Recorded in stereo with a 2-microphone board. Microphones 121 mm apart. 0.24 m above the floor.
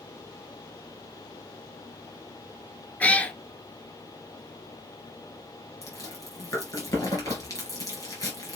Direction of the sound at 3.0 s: 10° left (ahead or behind).